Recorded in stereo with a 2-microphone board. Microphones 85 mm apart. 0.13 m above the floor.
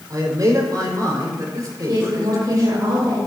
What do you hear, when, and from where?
0.1 s a man speaking: 45° right (ahead or behind), 5.5 m
1.9 s a woman speaking: 45° right (ahead or behind), 6 m